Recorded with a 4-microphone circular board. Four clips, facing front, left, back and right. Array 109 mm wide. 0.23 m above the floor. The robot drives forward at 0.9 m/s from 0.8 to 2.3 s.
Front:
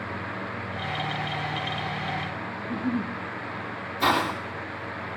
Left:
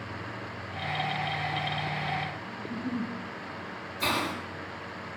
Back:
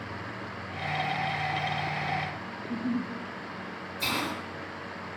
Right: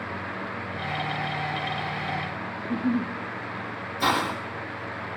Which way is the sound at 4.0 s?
50° right.